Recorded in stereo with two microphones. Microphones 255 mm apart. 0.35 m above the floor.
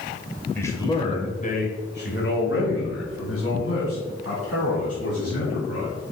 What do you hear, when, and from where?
0.6 s a man speaking: 10° left (ahead or behind), 1.4 m; by 5.9 s 70° left (ahead or behind), 3.5 m